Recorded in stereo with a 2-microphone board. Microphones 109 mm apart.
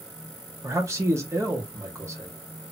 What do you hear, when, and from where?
0.6 s a man speaking: 25° right (ahead or behind), 1.4 m